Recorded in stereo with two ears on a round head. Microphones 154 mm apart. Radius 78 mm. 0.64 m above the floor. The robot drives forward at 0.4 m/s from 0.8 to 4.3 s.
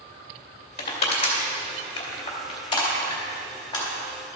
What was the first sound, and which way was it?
Crushing, 40° left (ahead or behind).